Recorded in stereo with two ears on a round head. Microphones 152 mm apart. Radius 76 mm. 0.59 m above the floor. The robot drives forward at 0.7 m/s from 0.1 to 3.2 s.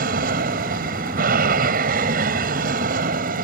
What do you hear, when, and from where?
0.0 s an aircraft: 55° right (ahead or behind)